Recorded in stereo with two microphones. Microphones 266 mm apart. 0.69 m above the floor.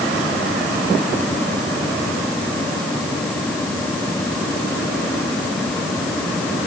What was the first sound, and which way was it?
Only background noise.